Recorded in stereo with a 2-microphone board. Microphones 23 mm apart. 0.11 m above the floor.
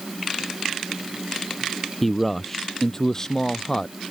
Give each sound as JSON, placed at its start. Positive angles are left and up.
{"t": 2.0, "sound": "a man speaking", "side_deg": 10}